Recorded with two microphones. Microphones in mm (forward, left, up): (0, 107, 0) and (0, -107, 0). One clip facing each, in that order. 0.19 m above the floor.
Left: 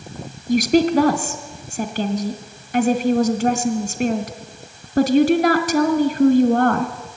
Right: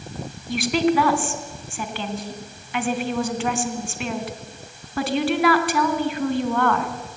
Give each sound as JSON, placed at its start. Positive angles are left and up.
{"t": 0.5, "sound": "a woman speaking", "side_deg": 45, "distance_m": 2.0}